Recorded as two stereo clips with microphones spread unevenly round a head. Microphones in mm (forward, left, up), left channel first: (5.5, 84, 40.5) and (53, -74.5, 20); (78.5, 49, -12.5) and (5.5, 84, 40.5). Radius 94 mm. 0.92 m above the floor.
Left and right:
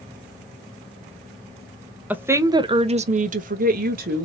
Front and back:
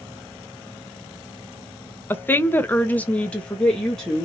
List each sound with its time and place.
2.1 s a woman speaking: straight ahead, 0.7 m; by 4.2 s 95° right, 0.9 m